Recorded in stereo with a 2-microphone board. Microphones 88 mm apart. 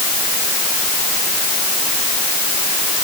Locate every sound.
Only background noise.